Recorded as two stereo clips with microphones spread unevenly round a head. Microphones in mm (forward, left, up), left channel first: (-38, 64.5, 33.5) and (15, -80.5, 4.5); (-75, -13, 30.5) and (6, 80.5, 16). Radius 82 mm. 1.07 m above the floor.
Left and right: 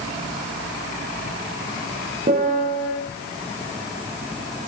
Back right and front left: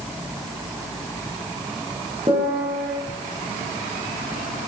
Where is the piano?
15° right, 5.5 m.